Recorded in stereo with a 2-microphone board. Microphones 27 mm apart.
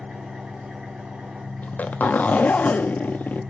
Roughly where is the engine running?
Right.